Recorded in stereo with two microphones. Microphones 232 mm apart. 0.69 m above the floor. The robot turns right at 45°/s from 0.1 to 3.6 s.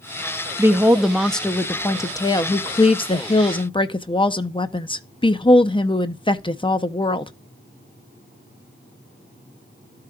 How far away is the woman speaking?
About 0.5 m.